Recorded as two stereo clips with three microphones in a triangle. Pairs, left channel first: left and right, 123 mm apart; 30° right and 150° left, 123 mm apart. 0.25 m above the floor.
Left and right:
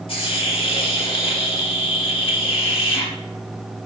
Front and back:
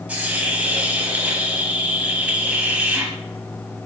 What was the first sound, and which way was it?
A hiss, 80° left.